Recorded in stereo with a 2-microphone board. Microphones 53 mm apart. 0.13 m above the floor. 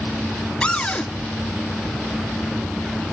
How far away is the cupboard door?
About 0.9 m.